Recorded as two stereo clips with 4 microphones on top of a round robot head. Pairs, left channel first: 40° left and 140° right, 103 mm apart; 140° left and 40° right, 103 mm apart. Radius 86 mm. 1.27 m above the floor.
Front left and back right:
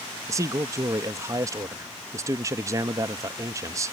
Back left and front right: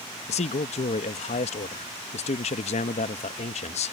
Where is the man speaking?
160° left.